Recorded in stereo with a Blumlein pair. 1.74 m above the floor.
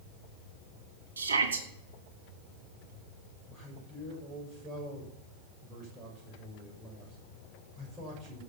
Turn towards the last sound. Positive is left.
turn(degrees=-25)